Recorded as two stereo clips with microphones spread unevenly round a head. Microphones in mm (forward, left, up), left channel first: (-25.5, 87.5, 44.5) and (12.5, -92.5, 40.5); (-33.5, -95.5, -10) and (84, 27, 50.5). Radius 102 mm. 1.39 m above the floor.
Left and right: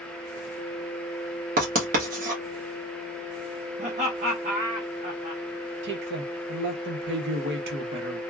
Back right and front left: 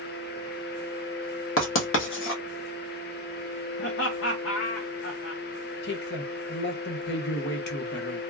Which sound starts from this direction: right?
A man speaking, at 5.8 s.